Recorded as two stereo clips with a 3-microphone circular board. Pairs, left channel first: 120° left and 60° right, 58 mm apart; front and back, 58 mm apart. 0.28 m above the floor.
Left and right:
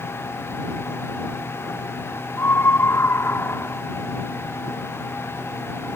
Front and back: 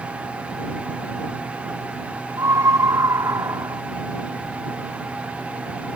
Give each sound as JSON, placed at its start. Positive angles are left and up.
{"t": 2.4, "sound": "a scream", "azimuth_deg": 165}